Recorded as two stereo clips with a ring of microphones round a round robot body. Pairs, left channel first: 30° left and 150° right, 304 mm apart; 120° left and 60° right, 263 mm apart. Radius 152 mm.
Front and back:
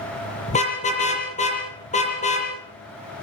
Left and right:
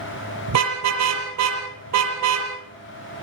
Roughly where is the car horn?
Ahead right.